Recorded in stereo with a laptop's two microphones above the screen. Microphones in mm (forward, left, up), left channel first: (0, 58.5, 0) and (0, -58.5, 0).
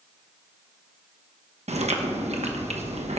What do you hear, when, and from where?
1.7 s chewing: 65° right (ahead or behind), 1.1 m